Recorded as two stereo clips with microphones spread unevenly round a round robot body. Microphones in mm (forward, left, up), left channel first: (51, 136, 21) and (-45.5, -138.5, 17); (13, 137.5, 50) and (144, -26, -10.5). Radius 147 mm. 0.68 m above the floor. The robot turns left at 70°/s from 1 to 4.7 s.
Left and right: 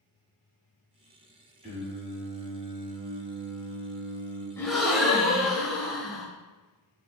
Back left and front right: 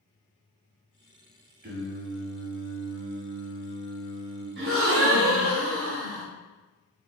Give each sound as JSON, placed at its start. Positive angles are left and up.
{"t": 1.6, "sound": "singing", "azimuth_deg": -40, "distance_m": 1.6}
{"t": 4.6, "sound": "a gasp", "azimuth_deg": -10, "distance_m": 0.8}